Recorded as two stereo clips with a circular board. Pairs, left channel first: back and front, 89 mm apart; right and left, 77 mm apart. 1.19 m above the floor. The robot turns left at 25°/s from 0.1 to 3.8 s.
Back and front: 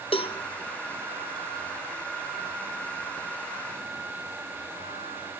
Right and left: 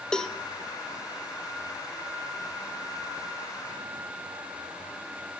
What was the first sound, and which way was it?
A cowbell, 170° right.